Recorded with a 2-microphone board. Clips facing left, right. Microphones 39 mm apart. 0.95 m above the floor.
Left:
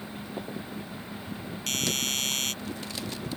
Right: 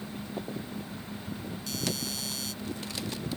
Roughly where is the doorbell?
Left.